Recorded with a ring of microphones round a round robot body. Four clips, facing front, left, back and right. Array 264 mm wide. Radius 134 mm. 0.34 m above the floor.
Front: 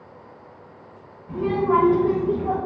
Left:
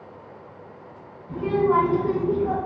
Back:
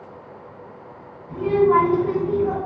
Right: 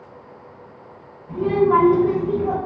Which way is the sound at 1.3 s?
5° left.